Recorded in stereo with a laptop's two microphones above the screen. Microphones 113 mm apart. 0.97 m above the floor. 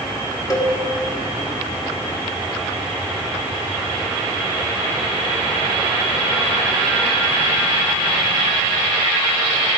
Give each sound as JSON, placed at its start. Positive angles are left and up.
{"t": 0.5, "sound": "a cowbell", "side_deg": 35, "distance_m": 1.5}